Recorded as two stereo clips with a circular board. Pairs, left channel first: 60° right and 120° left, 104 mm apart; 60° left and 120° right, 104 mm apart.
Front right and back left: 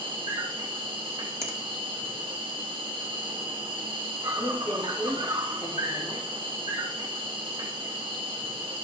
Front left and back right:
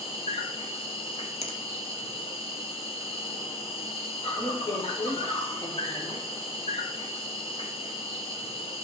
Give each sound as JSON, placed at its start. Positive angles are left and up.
{"t": 0.0, "sound": "an insect", "azimuth_deg": 80, "distance_m": 2.5}
{"t": 1.4, "sound": "a finger snap", "azimuth_deg": 55, "distance_m": 1.8}
{"t": 4.4, "sound": "a woman speaking", "azimuth_deg": 0, "distance_m": 5.5}